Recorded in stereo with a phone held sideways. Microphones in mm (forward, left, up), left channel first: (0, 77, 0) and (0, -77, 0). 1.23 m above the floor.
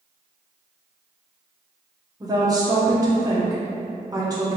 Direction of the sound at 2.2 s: 25° right (ahead or behind).